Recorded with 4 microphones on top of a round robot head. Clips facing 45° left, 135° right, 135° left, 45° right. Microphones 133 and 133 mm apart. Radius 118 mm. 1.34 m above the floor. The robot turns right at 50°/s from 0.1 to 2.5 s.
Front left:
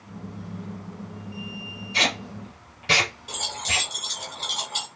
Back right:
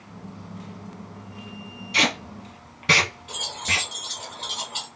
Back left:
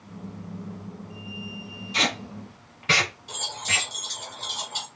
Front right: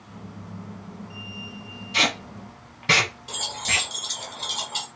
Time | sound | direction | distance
1.9 | tape being pulled | 130° right | 1.2 m
3.3 | keys jangling | 10° right | 0.9 m